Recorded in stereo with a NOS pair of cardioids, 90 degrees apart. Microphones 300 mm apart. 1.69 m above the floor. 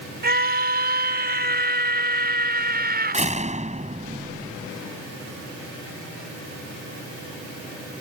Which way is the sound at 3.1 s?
25° right.